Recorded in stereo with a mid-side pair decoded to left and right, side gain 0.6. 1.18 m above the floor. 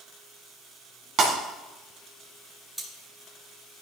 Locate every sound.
1.2 s breaking glass: 50° right, 3.5 m
2.8 s cutlery clinking: 5° right, 3.5 m